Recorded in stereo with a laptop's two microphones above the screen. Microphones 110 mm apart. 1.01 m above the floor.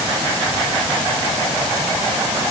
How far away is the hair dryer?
No hair dryer in this recording.